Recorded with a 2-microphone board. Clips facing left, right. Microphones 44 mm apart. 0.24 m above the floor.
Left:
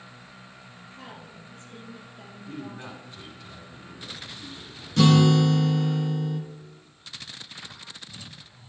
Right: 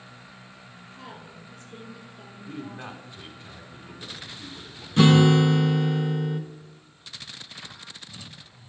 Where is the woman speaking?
15° left (ahead or behind), 5 m.